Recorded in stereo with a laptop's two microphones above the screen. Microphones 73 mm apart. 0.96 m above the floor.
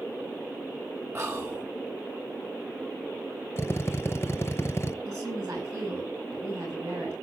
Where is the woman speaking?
50° right (ahead or behind), 7.5 m.